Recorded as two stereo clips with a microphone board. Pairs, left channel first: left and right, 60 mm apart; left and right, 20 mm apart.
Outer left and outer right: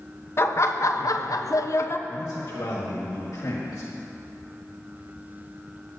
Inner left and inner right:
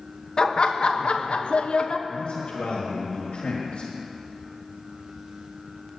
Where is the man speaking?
80° left, 1.7 m.